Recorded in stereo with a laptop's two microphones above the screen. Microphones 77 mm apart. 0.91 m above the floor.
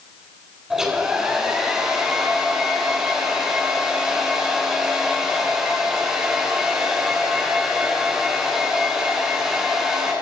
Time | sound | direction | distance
0.7 | a hair dryer | 5° right (ahead or behind) | 8.5 m